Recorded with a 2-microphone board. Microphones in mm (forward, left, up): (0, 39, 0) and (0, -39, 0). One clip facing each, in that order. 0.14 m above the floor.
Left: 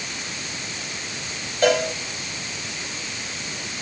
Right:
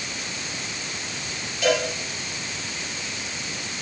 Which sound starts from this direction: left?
A cowbell, at 1.6 s.